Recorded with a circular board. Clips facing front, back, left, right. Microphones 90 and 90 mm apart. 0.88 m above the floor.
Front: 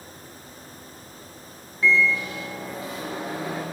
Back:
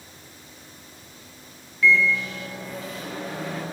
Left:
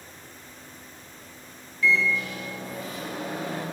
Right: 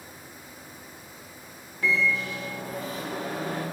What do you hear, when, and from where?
1.8 s a microwave: 60° right, 1.7 m